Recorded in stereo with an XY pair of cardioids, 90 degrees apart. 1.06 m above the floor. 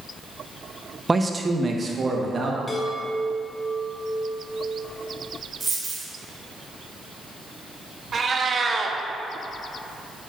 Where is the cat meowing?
45° right, 0.8 m.